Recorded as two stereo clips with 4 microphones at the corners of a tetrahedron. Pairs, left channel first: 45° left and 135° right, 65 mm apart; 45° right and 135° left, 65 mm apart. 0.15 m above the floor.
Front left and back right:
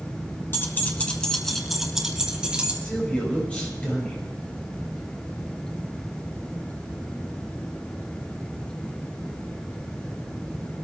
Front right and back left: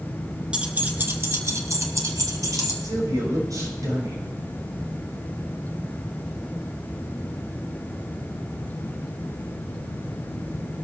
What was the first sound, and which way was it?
Keys jangling, 70° left.